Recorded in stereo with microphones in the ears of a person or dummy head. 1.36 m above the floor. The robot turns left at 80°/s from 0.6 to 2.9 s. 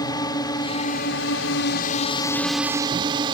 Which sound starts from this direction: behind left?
A drone, at 0.0 s.